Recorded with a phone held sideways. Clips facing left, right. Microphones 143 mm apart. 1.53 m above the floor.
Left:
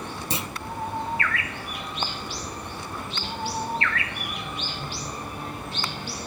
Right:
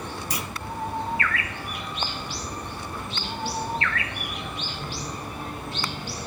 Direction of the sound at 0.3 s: 25° left (ahead or behind).